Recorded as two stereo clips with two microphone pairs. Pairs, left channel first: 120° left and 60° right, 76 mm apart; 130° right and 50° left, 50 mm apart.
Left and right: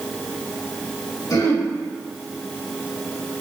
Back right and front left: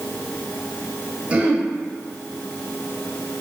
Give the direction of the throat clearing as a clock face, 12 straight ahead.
8 o'clock.